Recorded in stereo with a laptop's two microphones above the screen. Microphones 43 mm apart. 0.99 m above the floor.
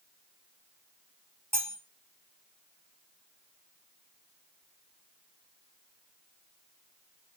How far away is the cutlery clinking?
About 1.4 m.